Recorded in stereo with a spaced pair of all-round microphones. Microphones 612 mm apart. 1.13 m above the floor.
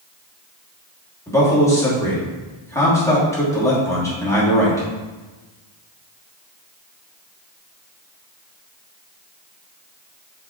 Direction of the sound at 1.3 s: 5° left (ahead or behind).